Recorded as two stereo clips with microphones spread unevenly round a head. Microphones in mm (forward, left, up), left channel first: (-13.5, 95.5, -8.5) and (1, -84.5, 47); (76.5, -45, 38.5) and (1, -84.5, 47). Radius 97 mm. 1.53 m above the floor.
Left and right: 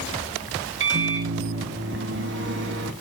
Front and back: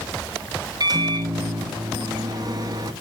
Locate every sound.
0.8 s a microwave: 110° right, 1.2 m